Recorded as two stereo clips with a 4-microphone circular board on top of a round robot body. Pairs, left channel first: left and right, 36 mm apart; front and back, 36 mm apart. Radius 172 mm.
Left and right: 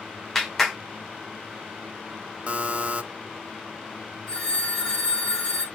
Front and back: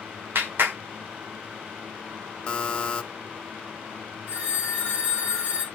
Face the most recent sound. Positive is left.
turn(degrees=175)